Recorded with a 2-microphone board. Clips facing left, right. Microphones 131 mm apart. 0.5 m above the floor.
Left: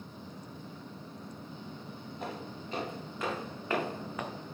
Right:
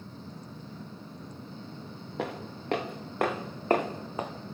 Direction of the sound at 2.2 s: 80° right.